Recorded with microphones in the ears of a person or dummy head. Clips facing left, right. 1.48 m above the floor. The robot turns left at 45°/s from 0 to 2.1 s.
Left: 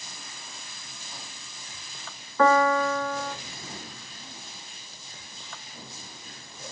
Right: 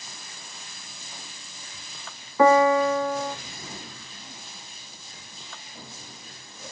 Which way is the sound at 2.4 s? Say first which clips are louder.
Right 4 dB; 15° right (ahead or behind).